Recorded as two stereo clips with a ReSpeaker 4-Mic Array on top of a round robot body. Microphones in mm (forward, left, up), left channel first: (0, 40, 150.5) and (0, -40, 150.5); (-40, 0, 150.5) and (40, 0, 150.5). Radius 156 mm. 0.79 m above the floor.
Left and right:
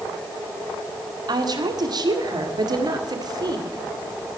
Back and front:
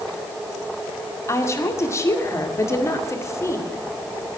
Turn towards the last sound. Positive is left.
turn(degrees=-125)